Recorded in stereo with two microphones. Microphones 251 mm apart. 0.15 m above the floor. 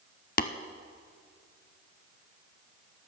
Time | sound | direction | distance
0.4 | tapping | 35° left (ahead or behind) | 0.5 m